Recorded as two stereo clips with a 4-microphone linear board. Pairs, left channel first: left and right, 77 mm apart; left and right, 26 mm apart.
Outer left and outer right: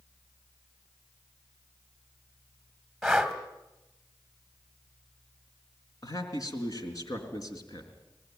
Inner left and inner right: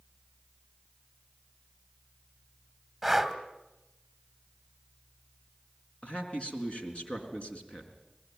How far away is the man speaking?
About 4 m.